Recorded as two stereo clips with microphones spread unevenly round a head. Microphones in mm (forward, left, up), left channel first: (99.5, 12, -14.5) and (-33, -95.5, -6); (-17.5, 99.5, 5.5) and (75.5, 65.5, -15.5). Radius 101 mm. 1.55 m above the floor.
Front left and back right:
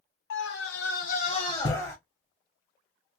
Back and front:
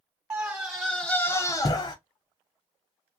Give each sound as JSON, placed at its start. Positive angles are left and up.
{"t": 0.3, "sound": "a scream", "azimuth_deg": 45, "distance_m": 1.1}